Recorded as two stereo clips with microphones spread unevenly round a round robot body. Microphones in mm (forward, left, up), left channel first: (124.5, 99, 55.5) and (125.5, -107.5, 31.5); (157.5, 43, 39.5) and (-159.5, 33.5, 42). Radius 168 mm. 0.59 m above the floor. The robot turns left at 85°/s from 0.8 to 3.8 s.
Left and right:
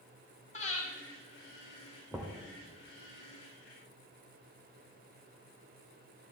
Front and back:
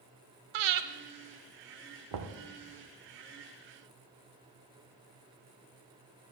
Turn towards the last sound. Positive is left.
turn(degrees=40)